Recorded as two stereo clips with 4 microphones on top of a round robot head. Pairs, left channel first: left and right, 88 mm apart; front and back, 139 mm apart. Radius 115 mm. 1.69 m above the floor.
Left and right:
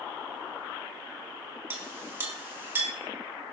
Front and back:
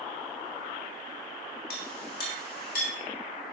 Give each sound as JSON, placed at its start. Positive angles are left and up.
{"t": 1.7, "sound": "a clink", "azimuth_deg": -30, "distance_m": 1.9}